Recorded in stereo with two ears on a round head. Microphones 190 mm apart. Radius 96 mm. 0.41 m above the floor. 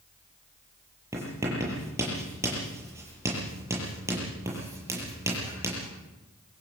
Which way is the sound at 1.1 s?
15° right (ahead or behind).